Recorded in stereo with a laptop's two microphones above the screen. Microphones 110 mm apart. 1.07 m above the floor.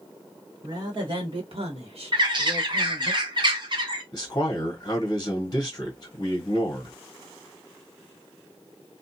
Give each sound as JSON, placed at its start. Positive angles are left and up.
{"t": 0.6, "sound": "a woman speaking", "side_deg": -35, "distance_m": 1.2}
{"t": 2.1, "sound": "a bird", "side_deg": -45, "distance_m": 0.6}
{"t": 4.1, "sound": "a man speaking", "side_deg": 35, "distance_m": 0.9}